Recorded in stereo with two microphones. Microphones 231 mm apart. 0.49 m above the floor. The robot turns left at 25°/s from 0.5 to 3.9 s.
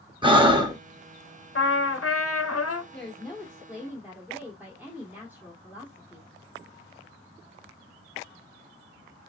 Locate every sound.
0.2 s breathing: 20° right (ahead or behind), 0.9 m; by 0.8 s 15° right (ahead or behind), 0.9 m
1.6 s a trumpet: 125° left, 0.7 m; by 2.8 s 90° left, 0.7 m
2.9 s a woman speaking: 5° left (ahead or behind), 1.3 m; by 6.3 s 10° right (ahead or behind), 1.3 m